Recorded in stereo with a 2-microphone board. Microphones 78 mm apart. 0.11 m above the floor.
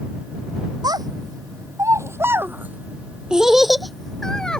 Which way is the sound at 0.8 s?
60° right (ahead or behind).